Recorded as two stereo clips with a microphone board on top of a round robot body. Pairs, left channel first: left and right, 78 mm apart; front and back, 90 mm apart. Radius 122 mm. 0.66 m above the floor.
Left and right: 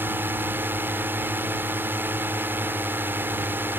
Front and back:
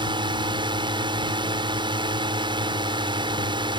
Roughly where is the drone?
Behind right.